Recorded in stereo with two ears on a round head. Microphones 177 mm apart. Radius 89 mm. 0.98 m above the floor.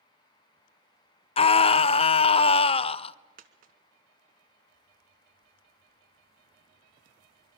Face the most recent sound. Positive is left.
turn(degrees=-45)  # may be behind; listen again after turning